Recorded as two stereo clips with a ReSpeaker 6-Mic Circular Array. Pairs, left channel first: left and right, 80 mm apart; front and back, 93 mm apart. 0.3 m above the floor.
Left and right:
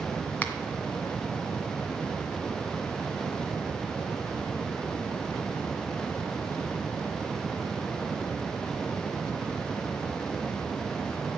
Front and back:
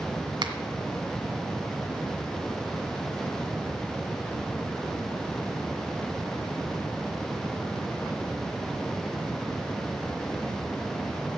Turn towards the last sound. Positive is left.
turn(degrees=155)